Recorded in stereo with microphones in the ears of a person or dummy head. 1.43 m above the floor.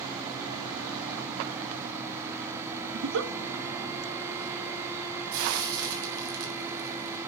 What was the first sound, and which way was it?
A giggle, 65° right (ahead or behind).